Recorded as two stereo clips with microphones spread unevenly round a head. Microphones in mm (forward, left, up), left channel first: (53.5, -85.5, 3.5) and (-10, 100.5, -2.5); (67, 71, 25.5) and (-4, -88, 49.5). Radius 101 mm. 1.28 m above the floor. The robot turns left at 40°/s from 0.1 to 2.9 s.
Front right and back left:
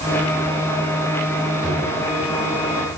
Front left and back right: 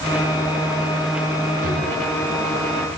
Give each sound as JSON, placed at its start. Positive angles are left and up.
{"t": 1.6, "sound": "a drawer", "azimuth_deg": -165, "distance_m": 5.5}